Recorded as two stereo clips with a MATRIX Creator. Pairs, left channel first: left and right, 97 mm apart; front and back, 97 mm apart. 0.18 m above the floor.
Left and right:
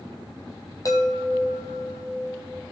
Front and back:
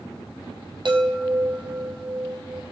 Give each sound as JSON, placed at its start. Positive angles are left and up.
{"t": 0.8, "sound": "a chime", "azimuth_deg": 145, "distance_m": 1.5}